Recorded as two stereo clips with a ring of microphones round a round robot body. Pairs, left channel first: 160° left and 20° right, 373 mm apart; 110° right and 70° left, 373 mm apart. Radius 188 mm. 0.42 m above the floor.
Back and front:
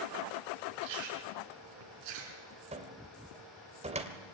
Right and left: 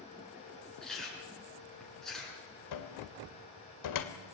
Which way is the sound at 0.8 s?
25° right.